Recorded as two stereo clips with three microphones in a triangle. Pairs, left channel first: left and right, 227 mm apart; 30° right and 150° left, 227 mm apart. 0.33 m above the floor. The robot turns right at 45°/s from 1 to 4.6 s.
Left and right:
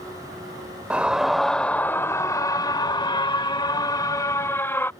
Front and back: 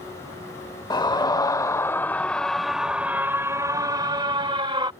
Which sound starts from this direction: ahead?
A scream, at 0.9 s.